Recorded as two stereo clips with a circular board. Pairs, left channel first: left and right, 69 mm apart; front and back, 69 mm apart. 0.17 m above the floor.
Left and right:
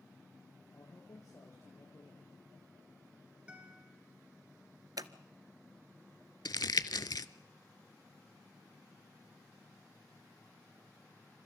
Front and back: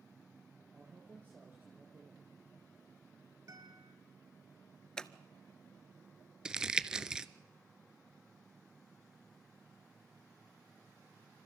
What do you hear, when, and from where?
0.7 s a man speaking: 125° left, 3 m
3.5 s a guitar: 160° right, 2.5 m
5.0 s scissors: 80° right, 0.6 m
6.5 s crumpling: 100° left, 0.5 m